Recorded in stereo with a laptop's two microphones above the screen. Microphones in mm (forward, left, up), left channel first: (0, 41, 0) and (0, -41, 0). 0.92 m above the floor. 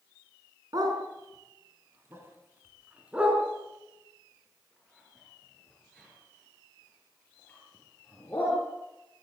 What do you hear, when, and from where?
0.7 s a dog barking: 50° right (ahead or behind), 4 m; by 8.6 s 20° left (ahead or behind), 8.5 m